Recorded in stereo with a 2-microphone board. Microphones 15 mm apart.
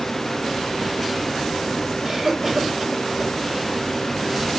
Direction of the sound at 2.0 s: 30° right (ahead or behind).